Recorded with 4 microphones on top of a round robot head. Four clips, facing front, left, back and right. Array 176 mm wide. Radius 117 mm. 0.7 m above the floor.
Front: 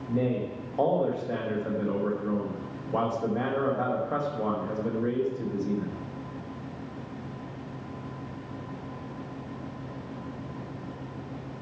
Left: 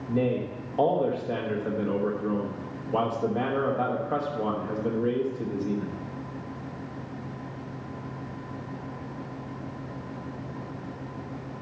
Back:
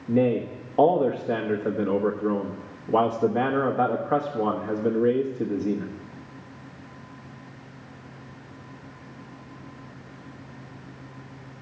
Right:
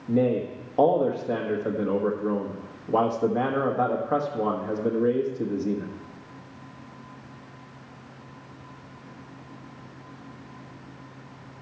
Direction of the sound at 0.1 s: 150° right.